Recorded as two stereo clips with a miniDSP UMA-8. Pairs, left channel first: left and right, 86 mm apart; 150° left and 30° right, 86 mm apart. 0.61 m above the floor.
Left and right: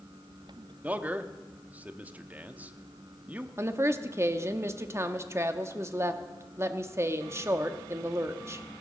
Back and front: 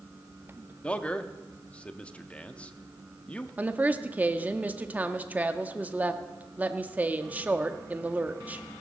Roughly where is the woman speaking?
Right.